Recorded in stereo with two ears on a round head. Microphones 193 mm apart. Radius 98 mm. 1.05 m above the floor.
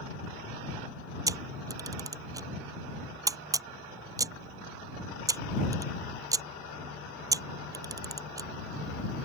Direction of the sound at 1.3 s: 15° right (ahead or behind).